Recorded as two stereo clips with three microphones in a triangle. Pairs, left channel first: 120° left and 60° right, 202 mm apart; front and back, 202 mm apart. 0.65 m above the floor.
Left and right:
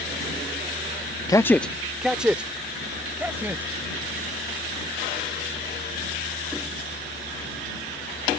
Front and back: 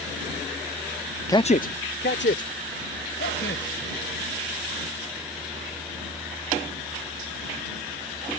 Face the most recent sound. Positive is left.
turn(degrees=20)